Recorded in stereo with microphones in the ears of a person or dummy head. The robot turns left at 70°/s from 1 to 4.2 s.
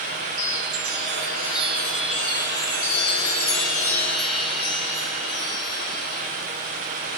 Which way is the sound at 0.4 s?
100° right.